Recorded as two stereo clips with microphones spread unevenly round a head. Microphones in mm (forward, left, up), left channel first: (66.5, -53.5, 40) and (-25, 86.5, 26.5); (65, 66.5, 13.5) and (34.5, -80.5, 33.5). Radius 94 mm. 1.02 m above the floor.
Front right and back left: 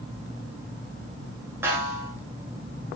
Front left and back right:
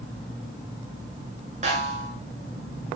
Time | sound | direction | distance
1.6 | a snare drum | 160° right | 8 m